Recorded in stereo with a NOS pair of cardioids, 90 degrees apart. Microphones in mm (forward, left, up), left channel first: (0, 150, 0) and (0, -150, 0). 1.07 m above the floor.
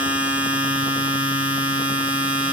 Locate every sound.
0.0 s a machine running: 5° right, 4 m